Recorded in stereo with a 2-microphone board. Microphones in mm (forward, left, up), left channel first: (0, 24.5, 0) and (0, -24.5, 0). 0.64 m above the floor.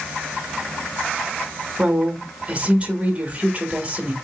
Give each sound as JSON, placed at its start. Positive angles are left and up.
{"t": 1.8, "sound": "a woman speaking", "side_deg": -25, "distance_m": 1.1}